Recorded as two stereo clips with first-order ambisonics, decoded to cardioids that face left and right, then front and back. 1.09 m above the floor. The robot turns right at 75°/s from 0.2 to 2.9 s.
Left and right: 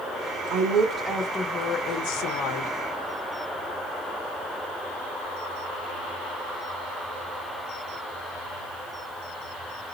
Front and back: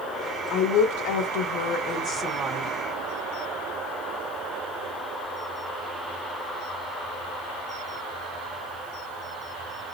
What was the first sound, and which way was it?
A woman speaking, 55° right.